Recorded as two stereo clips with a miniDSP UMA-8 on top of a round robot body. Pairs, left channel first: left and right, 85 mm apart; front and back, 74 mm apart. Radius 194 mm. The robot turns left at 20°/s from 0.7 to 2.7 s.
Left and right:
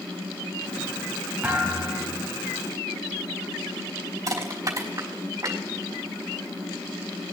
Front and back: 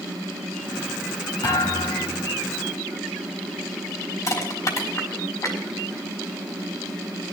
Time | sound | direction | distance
1.4 | a thud | 15° right | 1.9 m
4.3 | crushing | 40° right | 3.5 m